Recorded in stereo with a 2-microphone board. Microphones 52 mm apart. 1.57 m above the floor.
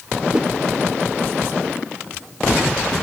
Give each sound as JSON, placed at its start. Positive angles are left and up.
{"t": 0.3, "sound": "a whoosh", "side_deg": -20, "distance_m": 0.7}